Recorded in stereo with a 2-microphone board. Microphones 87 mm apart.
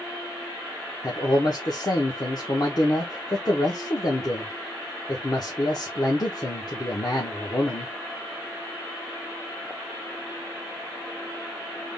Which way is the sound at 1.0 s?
50° left (ahead or behind).